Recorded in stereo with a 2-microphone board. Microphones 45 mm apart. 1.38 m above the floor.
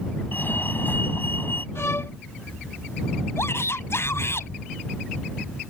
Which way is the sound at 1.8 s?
80° left.